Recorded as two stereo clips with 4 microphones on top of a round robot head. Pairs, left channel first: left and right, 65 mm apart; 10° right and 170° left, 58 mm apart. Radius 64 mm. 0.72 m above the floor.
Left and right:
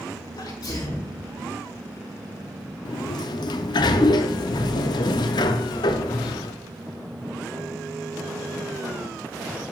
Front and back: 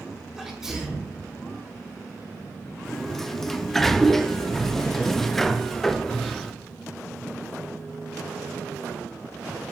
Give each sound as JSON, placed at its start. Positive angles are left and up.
{"t": 0.4, "sound": "a sneeze", "azimuth_deg": 85, "distance_m": 3.5}
{"t": 2.9, "sound": "a sliding door", "azimuth_deg": 75, "distance_m": 0.5}